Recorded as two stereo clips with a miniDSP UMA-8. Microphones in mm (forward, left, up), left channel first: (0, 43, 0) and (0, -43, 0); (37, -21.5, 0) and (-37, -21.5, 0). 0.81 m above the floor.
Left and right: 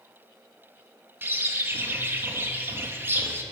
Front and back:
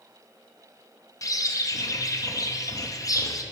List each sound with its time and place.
1.2 s a bird: 30° right, 0.5 m